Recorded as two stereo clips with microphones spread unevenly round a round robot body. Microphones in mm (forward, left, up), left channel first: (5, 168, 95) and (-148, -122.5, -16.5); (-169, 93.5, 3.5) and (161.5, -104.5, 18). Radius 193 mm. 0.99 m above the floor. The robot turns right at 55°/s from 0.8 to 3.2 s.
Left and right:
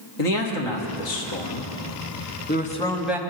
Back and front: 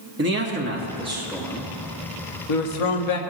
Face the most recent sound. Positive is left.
turn(degrees=165)